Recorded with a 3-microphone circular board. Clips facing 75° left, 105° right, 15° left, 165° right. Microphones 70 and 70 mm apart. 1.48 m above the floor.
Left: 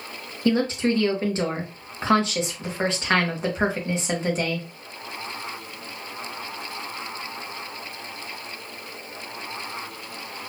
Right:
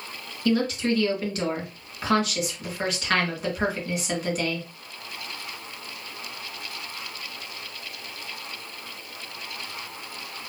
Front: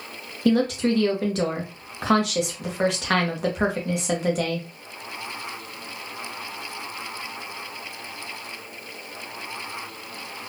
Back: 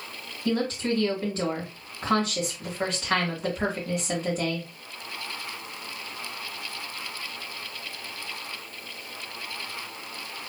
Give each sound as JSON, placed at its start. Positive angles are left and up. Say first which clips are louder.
{"t": 0.5, "sound": "a woman speaking", "louder": "left 2 dB, front 6 dB", "azimuth_deg": 15, "distance_m": 1.6}